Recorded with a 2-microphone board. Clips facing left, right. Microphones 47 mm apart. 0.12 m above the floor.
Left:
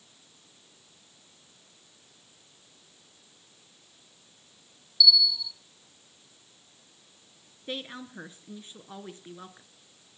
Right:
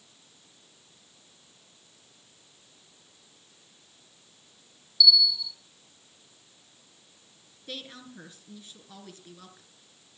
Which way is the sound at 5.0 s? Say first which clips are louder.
Even; centre (ahead or behind).